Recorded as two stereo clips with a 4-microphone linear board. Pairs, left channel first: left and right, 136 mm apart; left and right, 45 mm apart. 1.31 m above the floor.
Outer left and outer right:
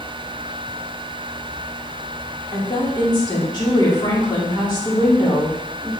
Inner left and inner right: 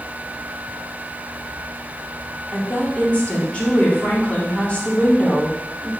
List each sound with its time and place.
2.5 s a woman speaking: 35° left (ahead or behind), 2 m